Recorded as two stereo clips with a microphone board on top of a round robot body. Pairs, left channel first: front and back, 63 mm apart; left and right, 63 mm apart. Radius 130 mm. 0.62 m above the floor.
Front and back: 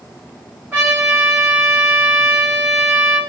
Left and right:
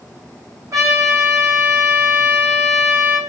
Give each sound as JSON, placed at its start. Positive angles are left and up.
{"t": 0.7, "sound": "a trumpet", "azimuth_deg": -120, "distance_m": 3.0}